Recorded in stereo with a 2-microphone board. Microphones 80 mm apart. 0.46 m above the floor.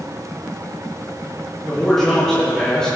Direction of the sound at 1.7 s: 5° left (ahead or behind).